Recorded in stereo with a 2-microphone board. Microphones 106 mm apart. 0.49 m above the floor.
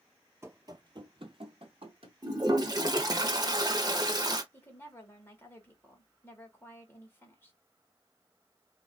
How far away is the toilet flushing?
About 0.7 m.